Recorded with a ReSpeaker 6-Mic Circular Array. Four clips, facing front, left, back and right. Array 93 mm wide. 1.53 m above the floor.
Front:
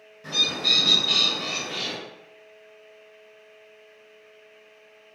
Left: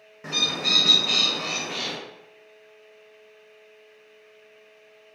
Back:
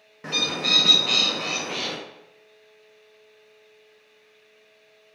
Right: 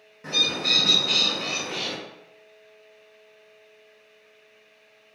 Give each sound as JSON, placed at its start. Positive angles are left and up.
{"t": 0.2, "sound": "a bird", "azimuth_deg": 160, "distance_m": 0.5}